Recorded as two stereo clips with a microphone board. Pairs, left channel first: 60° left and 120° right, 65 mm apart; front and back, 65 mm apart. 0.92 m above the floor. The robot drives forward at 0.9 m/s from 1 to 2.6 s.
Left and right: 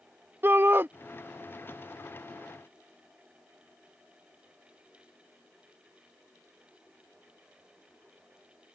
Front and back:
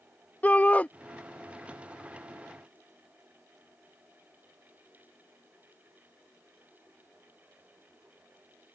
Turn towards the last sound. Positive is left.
turn(degrees=-145)